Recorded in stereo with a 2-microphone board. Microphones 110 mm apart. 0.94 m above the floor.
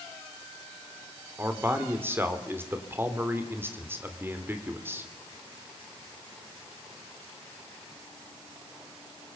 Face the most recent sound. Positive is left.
turn(degrees=-20)  # may be behind; listen again after turning